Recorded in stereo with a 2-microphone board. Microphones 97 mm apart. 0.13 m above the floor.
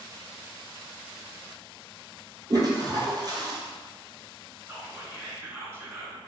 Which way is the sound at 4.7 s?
25° right (ahead or behind).